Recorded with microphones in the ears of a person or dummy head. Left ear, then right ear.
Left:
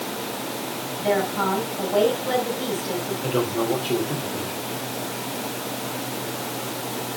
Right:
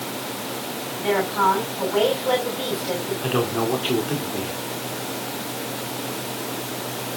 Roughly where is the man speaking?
Right.